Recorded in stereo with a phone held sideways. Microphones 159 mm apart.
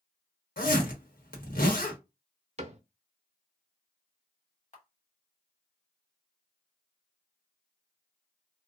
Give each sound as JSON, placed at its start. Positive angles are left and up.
{"t": 0.6, "sound": "a zipper", "side_deg": 65, "distance_m": 1.1}
{"t": 2.6, "sound": "a cupboard door", "side_deg": -45, "distance_m": 0.5}
{"t": 4.7, "sound": "a camera shutter", "side_deg": 45, "distance_m": 1.5}